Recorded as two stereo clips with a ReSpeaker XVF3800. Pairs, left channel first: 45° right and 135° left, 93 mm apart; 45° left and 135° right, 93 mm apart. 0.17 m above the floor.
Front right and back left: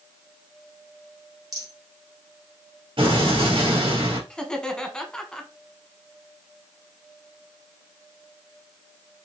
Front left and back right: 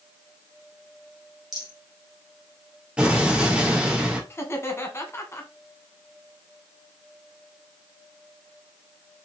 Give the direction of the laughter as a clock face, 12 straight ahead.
11 o'clock.